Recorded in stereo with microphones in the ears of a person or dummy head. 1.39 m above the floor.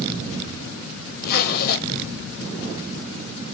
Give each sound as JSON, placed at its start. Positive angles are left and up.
{"t": 1.2, "sound": "a zipper", "side_deg": 50, "distance_m": 0.5}